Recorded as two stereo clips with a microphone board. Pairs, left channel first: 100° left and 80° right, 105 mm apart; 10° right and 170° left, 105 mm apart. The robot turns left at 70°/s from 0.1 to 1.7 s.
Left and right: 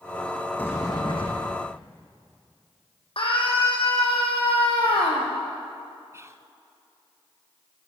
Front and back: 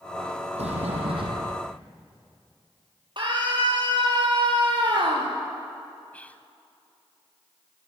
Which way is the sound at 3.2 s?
130° left.